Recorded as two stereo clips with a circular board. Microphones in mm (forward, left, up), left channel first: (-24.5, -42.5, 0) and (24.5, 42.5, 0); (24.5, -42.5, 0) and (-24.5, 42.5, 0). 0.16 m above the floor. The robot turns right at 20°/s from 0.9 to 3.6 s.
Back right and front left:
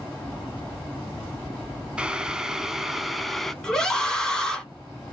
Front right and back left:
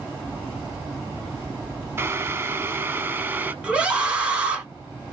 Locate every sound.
2.0 s boiling: 125° left, 0.5 m; by 3.5 s 155° left, 0.5 m
3.6 s a scream: 170° left, 1.2 m